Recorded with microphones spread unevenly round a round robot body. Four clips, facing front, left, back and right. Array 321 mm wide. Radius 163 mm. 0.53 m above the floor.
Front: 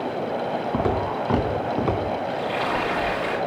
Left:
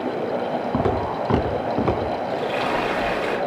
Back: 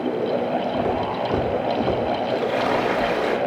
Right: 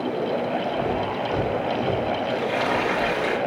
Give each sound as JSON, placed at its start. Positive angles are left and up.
{"t": 0.7, "sound": "footsteps", "azimuth_deg": 70, "distance_m": 3.5}
{"t": 2.3, "sound": "frying", "azimuth_deg": 180, "distance_m": 4.5}